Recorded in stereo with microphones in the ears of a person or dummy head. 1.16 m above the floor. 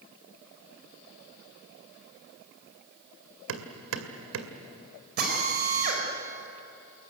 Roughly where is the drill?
Right.